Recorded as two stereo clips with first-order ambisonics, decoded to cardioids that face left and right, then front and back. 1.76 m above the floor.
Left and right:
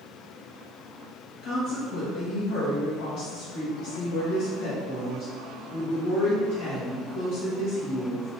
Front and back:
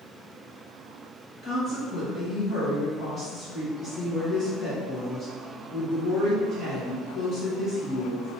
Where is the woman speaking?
55° left, 1.3 m.